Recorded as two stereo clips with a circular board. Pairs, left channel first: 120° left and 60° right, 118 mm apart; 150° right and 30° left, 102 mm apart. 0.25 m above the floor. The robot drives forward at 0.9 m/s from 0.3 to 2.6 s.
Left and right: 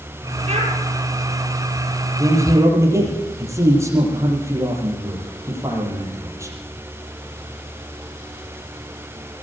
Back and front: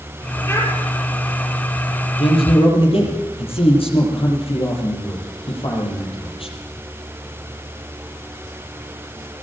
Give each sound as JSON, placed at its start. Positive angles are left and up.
{"t": 0.5, "sound": "a child speaking", "azimuth_deg": -85, "distance_m": 6.0}
{"t": 2.2, "sound": "a man speaking", "azimuth_deg": -125, "distance_m": 8.0}